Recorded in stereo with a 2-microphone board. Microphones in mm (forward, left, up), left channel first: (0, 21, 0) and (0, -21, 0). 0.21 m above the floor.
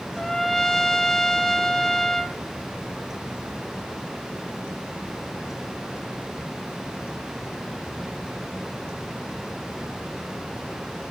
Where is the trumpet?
5° left (ahead or behind), 0.7 m.